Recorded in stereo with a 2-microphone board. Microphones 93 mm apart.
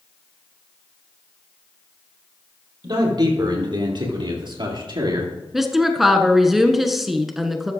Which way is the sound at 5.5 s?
5° right (ahead or behind).